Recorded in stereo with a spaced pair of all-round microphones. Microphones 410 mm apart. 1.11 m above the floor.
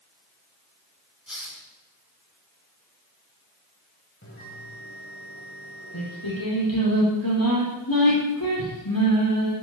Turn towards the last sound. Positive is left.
turn(degrees=55)  # may be behind; listen again after turning